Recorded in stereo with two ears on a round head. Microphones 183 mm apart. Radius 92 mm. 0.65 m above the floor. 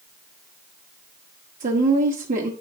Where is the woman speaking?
40° right (ahead or behind), 1.3 m.